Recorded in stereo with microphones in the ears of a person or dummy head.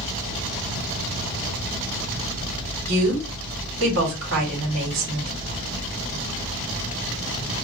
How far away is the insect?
About 3 m.